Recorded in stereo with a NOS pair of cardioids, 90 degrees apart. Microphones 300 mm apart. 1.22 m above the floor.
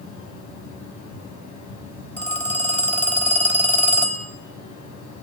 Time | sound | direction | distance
0.0 | a fan | 70° left | 8 m
2.2 | a phone ringing | 5° left | 5.5 m